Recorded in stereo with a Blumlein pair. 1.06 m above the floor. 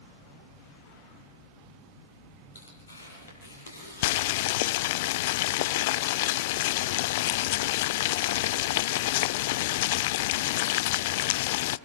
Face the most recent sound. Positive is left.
turn(degrees=50)